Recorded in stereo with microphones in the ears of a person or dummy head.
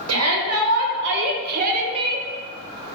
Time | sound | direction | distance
0.1 | a shout | 75° right (ahead or behind) | 1.3 m